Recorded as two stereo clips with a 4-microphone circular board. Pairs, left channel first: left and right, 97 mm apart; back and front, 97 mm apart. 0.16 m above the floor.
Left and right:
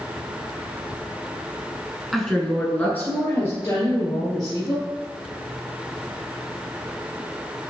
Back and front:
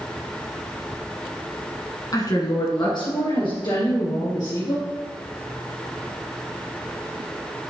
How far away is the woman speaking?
About 1.3 m.